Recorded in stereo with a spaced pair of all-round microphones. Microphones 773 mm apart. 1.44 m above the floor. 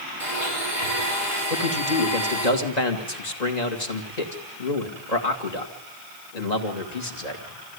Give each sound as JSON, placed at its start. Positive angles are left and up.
{"t": 0.2, "sound": "a blender", "side_deg": 40, "distance_m": 8.0}
{"t": 1.5, "sound": "a man speaking", "side_deg": 65, "distance_m": 2.5}